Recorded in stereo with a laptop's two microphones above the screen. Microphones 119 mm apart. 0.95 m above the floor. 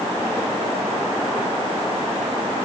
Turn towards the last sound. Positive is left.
No sound to turn to.